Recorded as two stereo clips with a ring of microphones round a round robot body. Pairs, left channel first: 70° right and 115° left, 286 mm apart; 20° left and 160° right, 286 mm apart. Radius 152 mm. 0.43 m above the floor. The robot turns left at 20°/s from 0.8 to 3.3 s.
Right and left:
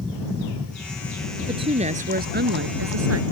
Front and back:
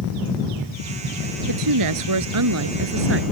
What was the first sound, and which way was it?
A woman speaking, 170° right.